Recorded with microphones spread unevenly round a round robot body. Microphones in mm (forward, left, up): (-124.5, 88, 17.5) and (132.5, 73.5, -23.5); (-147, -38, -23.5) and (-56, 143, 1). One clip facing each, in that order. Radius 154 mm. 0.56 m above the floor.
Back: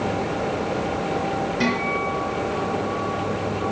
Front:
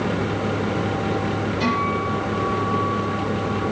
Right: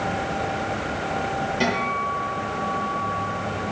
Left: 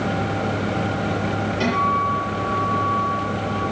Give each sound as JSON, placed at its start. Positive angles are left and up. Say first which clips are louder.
{"t": 1.6, "sound": "a guitar", "louder": "even, left 3 dB", "azimuth_deg": 170, "distance_m": 7.0}